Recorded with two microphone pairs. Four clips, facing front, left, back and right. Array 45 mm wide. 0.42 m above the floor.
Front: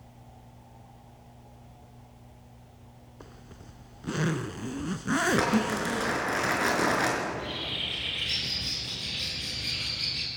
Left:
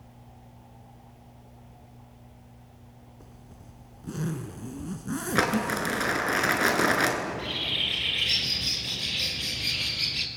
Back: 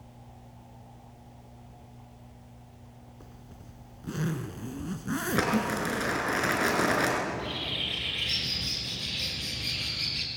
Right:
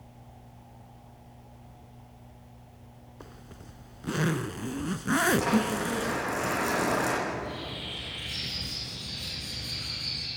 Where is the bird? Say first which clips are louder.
Left 3 dB, even; 95° left, 3 m.